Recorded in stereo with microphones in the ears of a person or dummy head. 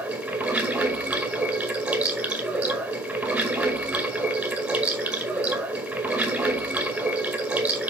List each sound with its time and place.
0.0 s running water: 5° right (ahead or behind), 1.8 m